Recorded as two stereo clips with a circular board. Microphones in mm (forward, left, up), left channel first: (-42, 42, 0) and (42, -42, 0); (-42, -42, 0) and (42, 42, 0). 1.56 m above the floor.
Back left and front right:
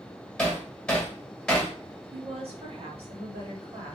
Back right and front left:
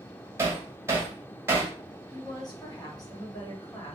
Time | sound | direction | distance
0.4 | hammering | 60° left | 1.3 m
2.1 | a woman speaking | 80° right | 1.5 m